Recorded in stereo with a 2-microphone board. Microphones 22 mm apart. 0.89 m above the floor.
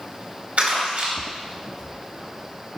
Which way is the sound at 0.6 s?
75° right (ahead or behind).